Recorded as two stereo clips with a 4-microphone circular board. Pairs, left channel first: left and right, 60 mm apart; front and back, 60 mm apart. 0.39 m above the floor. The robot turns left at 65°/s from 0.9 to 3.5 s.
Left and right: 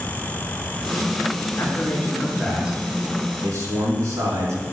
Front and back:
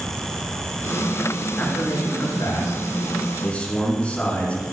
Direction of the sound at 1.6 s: 60° left.